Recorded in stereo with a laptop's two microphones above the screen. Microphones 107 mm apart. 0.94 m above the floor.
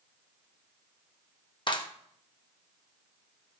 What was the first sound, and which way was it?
A clap, 45° left (ahead or behind).